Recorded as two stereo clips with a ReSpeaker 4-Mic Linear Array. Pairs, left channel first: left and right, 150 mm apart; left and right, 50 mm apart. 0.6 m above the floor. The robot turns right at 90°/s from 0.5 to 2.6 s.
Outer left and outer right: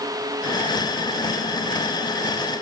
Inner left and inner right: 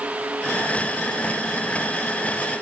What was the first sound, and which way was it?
Only background noise.